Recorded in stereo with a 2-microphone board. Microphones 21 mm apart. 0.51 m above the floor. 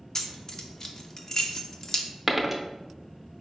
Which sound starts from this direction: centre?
A dropped coin, at 2.3 s.